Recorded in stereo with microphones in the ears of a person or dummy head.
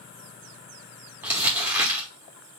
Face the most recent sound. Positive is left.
turn(degrees=-15)  # may be behind; listen again after turning